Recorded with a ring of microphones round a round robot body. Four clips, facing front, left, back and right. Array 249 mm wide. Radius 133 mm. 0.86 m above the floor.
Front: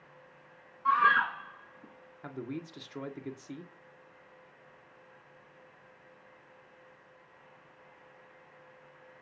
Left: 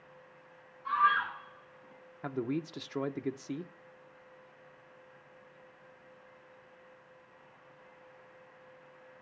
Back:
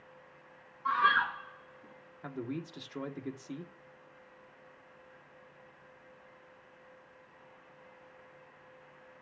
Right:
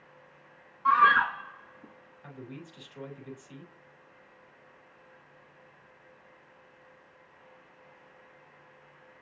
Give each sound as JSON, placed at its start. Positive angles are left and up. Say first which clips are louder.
{"t": 0.8, "sound": "a scream", "louder": "right 7 dB, front 3 dB", "azimuth_deg": -85, "distance_m": 1.4}
{"t": 2.2, "sound": "a man speaking", "louder": "left 11 dB, back 1 dB", "azimuth_deg": 90, "distance_m": 1.7}